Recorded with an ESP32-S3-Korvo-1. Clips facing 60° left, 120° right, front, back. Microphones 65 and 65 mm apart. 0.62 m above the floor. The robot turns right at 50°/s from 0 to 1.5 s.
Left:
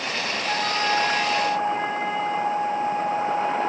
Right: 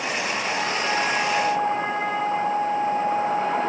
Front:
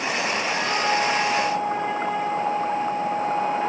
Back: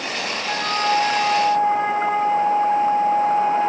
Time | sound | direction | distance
0.4 | a flute | 125° left | 1.4 m